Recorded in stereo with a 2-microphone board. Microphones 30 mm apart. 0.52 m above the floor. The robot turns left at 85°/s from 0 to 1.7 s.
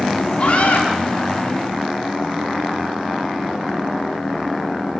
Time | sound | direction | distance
0.4 | a scream | 115° left | 6.5 m